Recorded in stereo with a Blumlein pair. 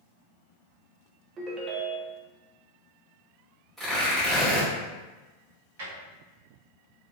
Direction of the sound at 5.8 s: 55° right.